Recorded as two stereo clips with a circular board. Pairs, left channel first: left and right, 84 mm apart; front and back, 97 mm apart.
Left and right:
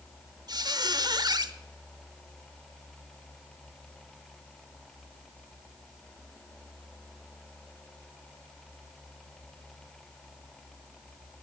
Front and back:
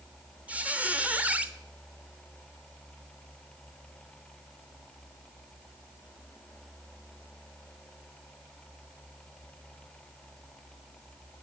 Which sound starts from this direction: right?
A squeak, at 0.5 s.